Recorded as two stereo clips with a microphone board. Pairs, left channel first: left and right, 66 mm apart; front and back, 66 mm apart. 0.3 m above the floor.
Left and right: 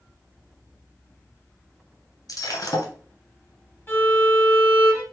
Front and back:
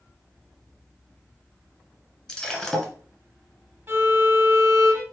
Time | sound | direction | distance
2.3 | breaking glass | 80° left | 0.9 m
3.9 | a violin | 135° left | 1.2 m